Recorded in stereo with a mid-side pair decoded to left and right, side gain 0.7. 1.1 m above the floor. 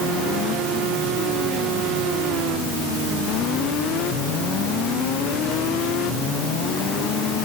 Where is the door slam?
No door slam in this recording.